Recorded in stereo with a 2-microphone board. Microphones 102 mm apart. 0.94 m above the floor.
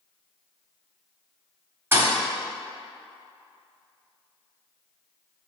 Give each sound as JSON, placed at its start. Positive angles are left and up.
{"t": 1.9, "sound": "a thud", "side_deg": -25, "distance_m": 0.7}